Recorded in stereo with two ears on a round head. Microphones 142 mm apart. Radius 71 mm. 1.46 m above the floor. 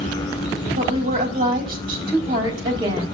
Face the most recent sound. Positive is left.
turn(degrees=-30)  # may be behind; listen again after turning